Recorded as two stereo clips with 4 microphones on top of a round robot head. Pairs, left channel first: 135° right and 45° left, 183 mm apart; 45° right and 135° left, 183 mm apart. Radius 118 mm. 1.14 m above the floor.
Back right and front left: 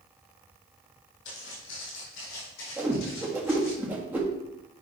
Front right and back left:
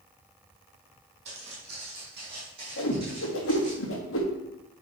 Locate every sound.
1.2 s footsteps: 170° right, 2.5 m; by 3.8 s 160° right, 4.5 m
2.8 s a whoosh: 35° right, 1.6 m